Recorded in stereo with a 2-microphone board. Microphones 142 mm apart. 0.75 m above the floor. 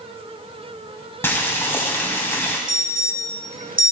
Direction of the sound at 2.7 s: 85° right.